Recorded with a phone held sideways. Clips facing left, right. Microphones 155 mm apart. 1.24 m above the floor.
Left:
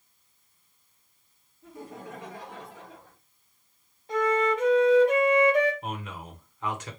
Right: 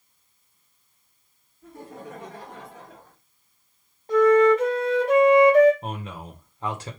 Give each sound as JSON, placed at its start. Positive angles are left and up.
{"t": 1.6, "sound": "laughter", "side_deg": -60, "distance_m": 2.0}
{"t": 4.1, "sound": "a flute", "side_deg": -45, "distance_m": 1.9}
{"t": 5.8, "sound": "a man speaking", "side_deg": -35, "distance_m": 1.0}